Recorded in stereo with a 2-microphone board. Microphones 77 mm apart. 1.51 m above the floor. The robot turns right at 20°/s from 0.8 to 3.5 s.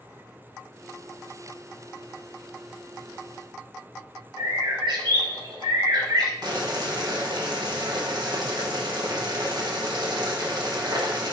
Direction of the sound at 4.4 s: 65° right (ahead or behind).